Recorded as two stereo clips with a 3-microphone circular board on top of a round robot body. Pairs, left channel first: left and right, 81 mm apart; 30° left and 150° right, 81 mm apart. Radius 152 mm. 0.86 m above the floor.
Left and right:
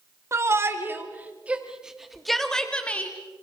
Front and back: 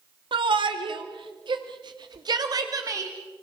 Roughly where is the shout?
Behind right.